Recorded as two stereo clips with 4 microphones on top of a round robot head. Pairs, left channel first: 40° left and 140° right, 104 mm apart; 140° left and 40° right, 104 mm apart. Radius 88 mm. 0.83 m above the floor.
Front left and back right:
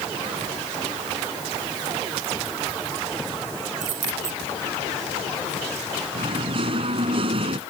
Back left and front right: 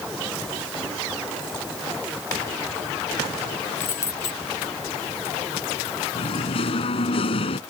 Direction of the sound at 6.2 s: Straight behind.